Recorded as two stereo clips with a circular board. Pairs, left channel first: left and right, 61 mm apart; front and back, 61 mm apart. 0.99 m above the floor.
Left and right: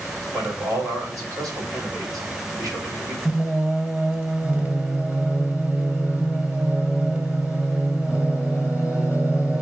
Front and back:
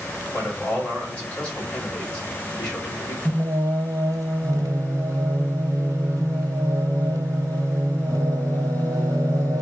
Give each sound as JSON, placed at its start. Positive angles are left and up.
{"t": 0.3, "sound": "a man speaking", "azimuth_deg": -65, "distance_m": 3.0}
{"t": 3.2, "sound": "singing", "azimuth_deg": -155, "distance_m": 1.4}